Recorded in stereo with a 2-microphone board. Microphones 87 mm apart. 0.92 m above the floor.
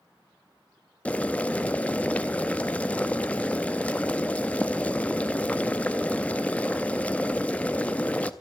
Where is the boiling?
15° left (ahead or behind), 0.6 m.